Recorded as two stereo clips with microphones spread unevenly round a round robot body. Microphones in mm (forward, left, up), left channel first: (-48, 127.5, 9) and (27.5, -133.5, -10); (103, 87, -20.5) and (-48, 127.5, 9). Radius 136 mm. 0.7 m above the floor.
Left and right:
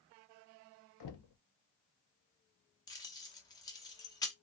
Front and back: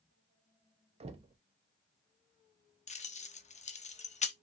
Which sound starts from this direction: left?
Knocking, at 1.0 s.